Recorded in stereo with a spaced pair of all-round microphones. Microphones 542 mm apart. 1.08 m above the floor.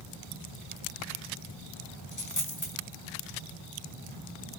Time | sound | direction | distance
2.1 | a dropped coin | 35° left (ahead or behind) | 2 m